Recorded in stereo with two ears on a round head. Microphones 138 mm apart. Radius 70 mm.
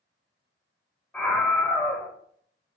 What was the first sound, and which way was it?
A scream, 5° left (ahead or behind).